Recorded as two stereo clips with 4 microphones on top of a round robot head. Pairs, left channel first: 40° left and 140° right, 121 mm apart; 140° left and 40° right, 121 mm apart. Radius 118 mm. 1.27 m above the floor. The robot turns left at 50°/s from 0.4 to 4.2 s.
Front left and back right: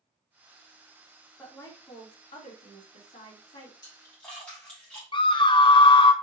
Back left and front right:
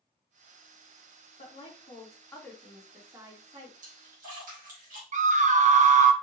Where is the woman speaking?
120° left, 3 m; by 3.7 s straight ahead, 3 m.